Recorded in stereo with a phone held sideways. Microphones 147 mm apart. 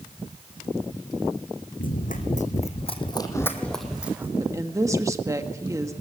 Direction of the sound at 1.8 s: 65° left (ahead or behind).